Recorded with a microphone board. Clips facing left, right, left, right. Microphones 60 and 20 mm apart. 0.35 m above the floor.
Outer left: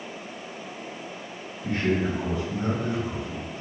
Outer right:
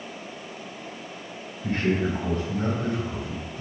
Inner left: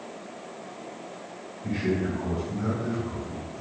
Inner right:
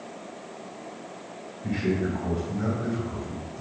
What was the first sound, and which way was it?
A man speaking, 50° right (ahead or behind).